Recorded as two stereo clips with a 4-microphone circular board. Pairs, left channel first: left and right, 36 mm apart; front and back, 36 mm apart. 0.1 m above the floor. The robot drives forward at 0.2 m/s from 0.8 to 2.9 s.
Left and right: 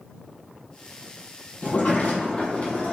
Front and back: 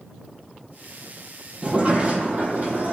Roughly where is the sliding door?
Behind left.